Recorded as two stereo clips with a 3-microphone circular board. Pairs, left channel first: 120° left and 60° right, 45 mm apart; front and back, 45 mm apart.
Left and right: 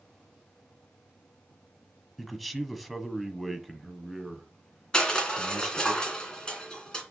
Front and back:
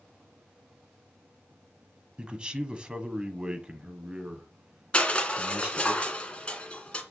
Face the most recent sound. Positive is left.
turn(degrees=55)